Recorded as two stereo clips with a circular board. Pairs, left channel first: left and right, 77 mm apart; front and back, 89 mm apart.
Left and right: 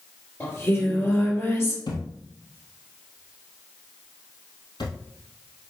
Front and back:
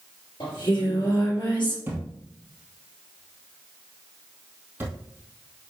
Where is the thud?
110° left, 1.8 m.